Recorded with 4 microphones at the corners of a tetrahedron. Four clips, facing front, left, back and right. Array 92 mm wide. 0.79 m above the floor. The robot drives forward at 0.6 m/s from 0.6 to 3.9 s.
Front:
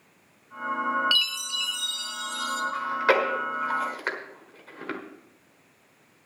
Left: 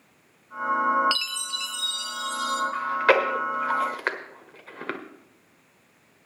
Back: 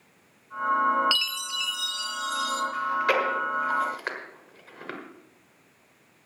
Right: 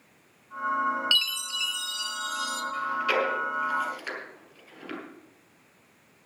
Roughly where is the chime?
Behind left.